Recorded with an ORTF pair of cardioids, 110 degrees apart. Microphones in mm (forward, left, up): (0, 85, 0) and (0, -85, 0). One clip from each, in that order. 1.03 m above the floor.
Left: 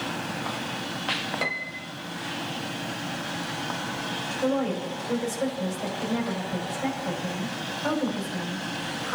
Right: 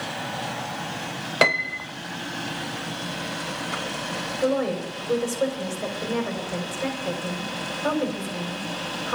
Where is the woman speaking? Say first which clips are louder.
Right 3 dB; 35° right, 5.5 m.